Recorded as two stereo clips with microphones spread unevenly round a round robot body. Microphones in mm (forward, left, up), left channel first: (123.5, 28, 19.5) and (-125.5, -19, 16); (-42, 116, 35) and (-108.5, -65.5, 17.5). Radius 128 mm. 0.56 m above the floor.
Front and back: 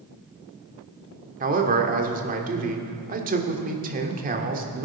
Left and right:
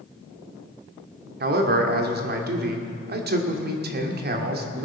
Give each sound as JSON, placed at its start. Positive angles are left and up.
{"t": 1.4, "sound": "a man speaking", "azimuth_deg": -120, "distance_m": 1.4}